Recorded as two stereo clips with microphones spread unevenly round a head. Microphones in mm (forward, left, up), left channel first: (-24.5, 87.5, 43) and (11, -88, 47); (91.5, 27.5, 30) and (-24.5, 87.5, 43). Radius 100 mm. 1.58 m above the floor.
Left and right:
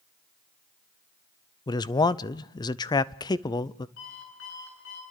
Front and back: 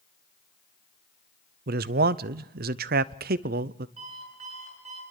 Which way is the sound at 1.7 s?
170° left.